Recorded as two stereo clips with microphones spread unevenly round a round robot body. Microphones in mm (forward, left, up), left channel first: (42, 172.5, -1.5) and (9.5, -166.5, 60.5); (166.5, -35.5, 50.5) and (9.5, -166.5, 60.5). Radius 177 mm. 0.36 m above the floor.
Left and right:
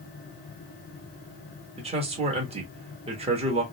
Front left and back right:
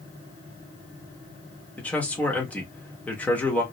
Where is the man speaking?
25° right, 0.8 m.